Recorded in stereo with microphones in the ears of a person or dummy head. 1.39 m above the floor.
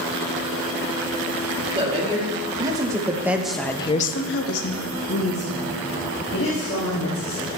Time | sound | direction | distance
1.8 | a woman speaking | 30° right (ahead or behind) | 2.5 m